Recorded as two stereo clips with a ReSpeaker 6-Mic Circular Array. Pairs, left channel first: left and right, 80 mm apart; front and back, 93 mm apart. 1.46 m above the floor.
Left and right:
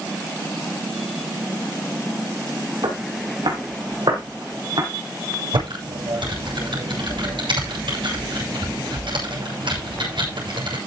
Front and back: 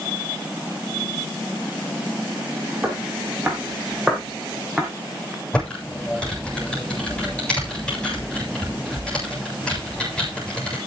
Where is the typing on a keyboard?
80° right, 7.5 m.